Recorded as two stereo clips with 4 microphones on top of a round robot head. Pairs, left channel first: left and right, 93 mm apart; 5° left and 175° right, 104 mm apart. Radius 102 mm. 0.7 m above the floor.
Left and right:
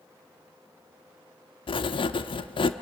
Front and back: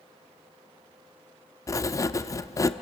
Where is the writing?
65° left, 0.8 m.